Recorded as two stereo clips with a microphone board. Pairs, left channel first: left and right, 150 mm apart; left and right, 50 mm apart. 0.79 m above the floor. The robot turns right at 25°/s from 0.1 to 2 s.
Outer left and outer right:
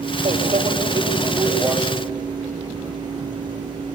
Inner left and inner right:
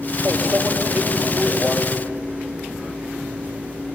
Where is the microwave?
50° right, 4 m; by 1.8 s 10° right, 4 m.